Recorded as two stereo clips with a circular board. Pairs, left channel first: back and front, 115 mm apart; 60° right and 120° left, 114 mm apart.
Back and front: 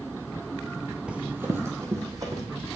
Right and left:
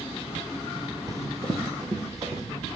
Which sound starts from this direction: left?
Running footsteps, at 1.1 s.